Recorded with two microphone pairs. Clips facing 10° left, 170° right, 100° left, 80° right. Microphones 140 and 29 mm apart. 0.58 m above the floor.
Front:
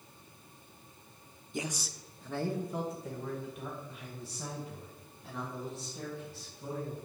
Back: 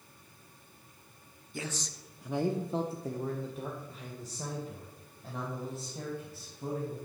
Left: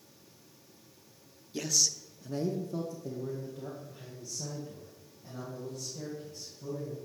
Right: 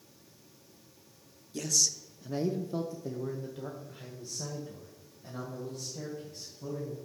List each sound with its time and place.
1.5 s a man speaking: 60° left, 0.8 m; by 7.0 s 120° right, 4.5 m